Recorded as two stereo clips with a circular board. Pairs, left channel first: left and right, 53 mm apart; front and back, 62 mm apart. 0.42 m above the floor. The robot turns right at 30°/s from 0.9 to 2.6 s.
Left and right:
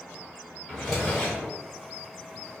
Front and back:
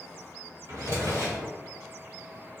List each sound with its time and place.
0.7 s a drawer: 175° right, 1.4 m; by 1.5 s 160° right, 1.4 m